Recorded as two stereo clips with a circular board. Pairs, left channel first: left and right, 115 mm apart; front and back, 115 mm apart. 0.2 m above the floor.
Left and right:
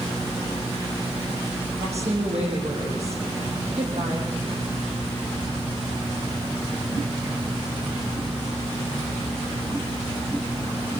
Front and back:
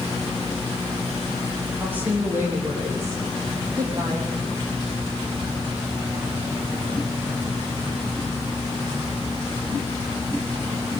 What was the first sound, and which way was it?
A woman speaking, 105° right.